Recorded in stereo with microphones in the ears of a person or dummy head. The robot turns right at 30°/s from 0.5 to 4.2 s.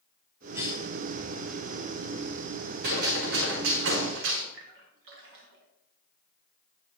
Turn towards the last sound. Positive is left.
turn(degrees=-60)  # may be behind; listen again after turning